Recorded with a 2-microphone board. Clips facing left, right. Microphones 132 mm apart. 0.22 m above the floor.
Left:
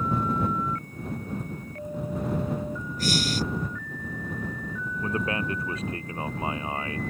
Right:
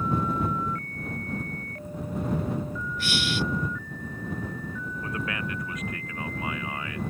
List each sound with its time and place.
3.0 s breathing: 40° left (ahead or behind)
5.0 s a man speaking: 30° left (ahead or behind)